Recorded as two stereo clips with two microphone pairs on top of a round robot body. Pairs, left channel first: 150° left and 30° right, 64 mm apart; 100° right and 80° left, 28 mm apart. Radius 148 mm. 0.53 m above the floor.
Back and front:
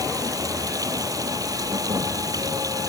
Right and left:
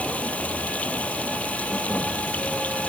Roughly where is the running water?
Ahead right.